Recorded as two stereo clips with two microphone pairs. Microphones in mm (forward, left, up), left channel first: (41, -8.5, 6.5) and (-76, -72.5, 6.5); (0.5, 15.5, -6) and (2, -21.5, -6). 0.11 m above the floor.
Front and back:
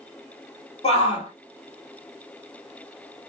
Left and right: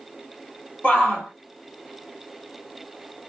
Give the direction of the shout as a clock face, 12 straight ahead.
10 o'clock.